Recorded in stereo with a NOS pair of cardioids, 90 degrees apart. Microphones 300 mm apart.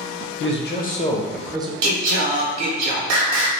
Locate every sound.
0.4 s a man speaking: 45° left, 0.8 m; by 1.7 s 20° right, 0.5 m
1.8 s singing: 60° right, 0.7 m